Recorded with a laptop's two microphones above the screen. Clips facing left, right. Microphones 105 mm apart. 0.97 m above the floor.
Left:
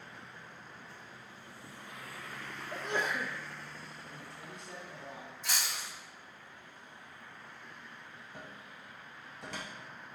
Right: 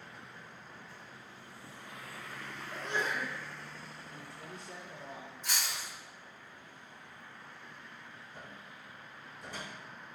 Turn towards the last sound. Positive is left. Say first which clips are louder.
# left 2 dB
turn(degrees=70)  # may be behind; listen again after turning